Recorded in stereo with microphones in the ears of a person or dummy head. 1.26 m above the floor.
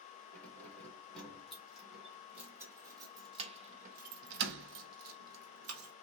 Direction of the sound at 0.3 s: 10° left (ahead or behind).